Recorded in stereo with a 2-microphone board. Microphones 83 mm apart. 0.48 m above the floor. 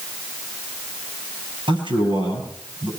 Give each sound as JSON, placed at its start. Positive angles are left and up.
{"t": 1.7, "sound": "a man speaking", "side_deg": -85, "distance_m": 10.0}